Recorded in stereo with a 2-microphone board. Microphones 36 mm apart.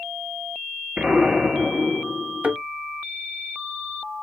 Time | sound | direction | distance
1.0 | an explosion | 35° right (ahead or behind) | 1.5 m
2.4 | a thud | 45° right (ahead or behind) | 1.0 m